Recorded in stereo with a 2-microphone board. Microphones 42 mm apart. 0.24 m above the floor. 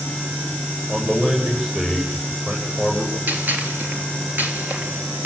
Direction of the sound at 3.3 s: 45° right (ahead or behind).